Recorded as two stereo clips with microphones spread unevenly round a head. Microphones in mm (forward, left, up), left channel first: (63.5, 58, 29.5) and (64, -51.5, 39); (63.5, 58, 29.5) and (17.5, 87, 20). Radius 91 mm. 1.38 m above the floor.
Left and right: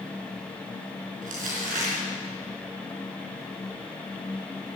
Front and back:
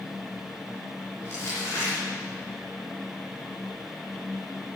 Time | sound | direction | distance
1.2 | crumpling | 105° right | 4.5 m